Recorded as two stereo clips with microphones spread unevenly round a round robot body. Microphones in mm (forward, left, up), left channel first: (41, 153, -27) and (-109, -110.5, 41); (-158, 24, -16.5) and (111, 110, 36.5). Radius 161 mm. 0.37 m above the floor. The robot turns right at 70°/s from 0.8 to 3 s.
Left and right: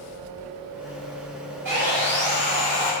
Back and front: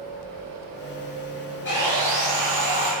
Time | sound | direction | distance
1.6 | sawing | 115° right | 1.4 m